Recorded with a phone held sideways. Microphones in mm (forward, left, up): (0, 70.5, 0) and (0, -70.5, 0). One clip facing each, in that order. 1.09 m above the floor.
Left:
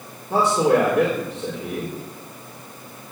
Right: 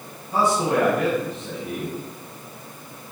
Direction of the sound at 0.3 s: 60° left (ahead or behind).